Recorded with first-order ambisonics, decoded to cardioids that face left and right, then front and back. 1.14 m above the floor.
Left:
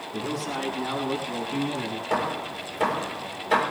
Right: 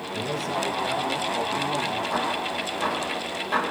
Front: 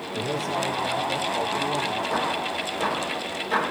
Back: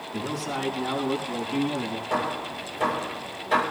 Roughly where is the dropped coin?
No dropped coin in this recording.